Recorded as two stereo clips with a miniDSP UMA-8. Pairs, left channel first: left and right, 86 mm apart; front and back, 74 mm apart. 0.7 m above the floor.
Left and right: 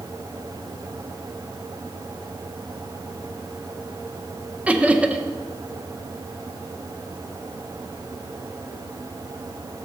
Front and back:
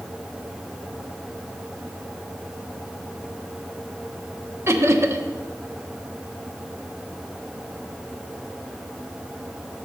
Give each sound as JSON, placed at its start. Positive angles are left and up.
{"t": 4.7, "sound": "laughter", "azimuth_deg": -155, "distance_m": 0.7}